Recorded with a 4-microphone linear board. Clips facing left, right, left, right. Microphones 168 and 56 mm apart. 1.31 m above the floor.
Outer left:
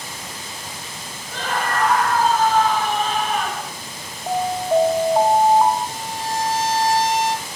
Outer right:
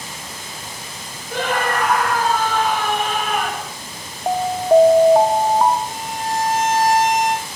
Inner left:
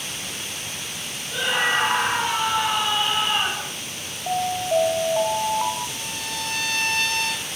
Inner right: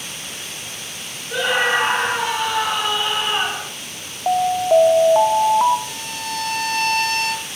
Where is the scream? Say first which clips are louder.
Outer right 3 dB, inner right 4 dB; 80° right, 6.5 m.